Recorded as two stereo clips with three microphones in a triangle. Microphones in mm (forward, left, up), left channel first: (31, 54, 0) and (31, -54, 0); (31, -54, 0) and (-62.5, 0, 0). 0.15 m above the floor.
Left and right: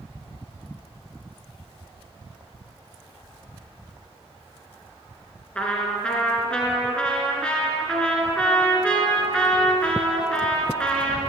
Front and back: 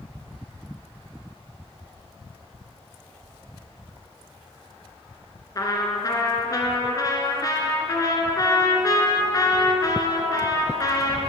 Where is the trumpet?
10° left, 1.8 m.